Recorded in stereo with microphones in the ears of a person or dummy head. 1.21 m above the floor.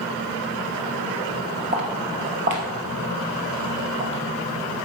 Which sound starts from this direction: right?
Footsteps, at 1.7 s.